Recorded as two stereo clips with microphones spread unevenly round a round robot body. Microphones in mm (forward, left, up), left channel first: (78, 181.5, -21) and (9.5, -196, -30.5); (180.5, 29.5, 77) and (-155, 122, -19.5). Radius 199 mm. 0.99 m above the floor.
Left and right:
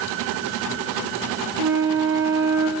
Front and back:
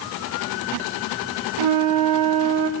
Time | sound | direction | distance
1.6 | a flute | 160° right | 1.7 m